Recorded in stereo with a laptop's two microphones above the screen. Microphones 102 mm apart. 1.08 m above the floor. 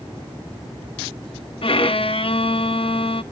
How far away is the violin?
About 0.9 m.